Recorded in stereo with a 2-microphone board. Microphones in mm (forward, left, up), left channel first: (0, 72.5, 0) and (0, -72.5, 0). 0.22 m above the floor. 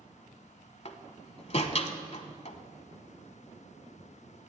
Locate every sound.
0.8 s a door slam: 50° left (ahead or behind), 0.9 m